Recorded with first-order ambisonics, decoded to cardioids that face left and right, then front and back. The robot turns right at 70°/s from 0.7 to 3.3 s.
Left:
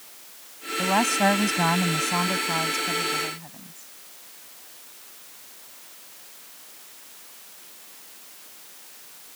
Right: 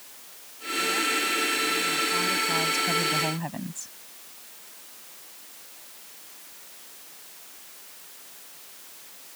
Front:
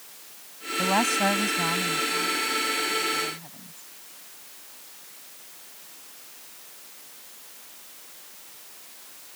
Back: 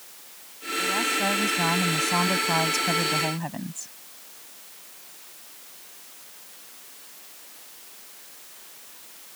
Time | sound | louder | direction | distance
0.8 | a woman speaking | left 4 dB, front 2 dB | 45° left | ?